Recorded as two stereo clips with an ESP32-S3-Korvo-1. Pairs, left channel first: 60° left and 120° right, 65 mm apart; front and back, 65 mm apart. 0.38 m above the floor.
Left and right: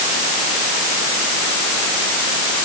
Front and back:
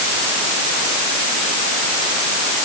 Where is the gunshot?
No gunshot in this recording.